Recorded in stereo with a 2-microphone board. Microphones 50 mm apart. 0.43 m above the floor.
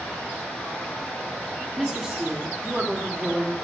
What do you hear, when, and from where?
0.0 s running water: 10° left (ahead or behind), 3.5 m
1.8 s a woman speaking: centre (ahead or behind), 1.1 m